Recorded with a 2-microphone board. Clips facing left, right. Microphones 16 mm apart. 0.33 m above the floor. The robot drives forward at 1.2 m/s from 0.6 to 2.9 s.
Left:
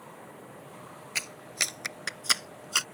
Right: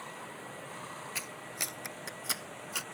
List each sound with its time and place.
0.0 s running water: 55° right (ahead or behind); by 3.0 s 65° right (ahead or behind)
1.1 s a clap: 35° left (ahead or behind); by 2.9 s 55° left (ahead or behind)